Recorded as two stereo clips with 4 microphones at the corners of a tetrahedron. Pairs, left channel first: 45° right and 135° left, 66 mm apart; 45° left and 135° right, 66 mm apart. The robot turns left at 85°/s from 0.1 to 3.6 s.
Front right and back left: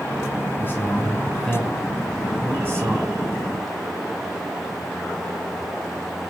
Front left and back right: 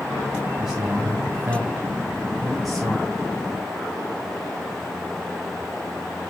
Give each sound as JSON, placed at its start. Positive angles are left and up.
{"t": 0.6, "sound": "a man speaking", "azimuth_deg": -55, "distance_m": 1.8}